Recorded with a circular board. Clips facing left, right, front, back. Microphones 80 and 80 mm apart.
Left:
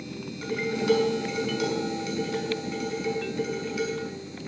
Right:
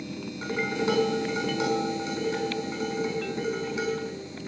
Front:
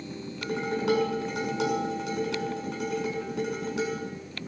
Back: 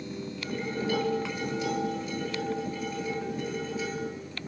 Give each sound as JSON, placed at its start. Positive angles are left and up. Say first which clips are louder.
{"t": 0.4, "sound": "dishes clattering", "louder": "left 1 dB, front 5 dB", "azimuth_deg": -25, "distance_m": 6.0}